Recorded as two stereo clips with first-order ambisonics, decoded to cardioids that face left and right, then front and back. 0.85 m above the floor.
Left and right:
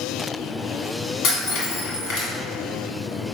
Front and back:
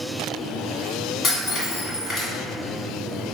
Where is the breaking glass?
65° left, 1.6 m.